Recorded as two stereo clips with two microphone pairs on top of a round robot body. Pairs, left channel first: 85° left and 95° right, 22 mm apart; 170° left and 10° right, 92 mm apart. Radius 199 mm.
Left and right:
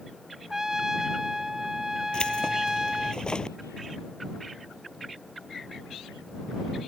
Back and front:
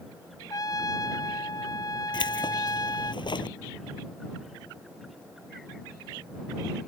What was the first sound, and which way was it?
A trumpet, 160° right.